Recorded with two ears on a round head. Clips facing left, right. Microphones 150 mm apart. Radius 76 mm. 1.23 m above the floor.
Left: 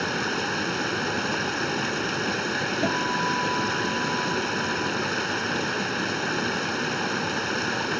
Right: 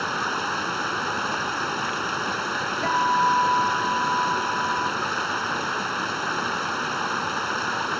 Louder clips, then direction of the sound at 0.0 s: Left 1 dB; 20° left (ahead or behind).